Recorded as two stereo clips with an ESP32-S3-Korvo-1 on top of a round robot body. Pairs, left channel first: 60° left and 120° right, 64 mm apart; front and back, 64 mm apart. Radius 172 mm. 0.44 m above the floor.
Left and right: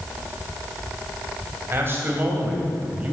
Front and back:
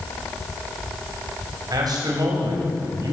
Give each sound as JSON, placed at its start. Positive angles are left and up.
{"t": 1.7, "sound": "a man speaking", "azimuth_deg": -175, "distance_m": 4.0}